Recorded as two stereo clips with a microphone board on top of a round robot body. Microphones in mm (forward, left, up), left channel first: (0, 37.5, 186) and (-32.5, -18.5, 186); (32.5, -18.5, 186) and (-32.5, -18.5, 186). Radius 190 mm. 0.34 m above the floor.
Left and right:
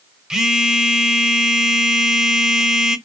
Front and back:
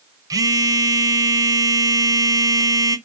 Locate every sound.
0.3 s a phone buzzing: 160° left, 1.1 m